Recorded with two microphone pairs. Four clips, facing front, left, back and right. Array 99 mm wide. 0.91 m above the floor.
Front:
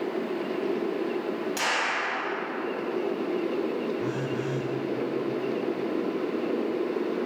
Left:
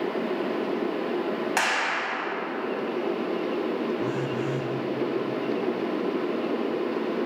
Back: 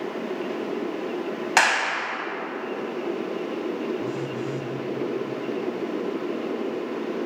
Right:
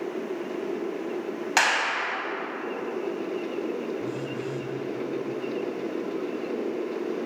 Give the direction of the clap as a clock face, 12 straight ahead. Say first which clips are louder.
Right 1 dB, back 6 dB; 6 o'clock.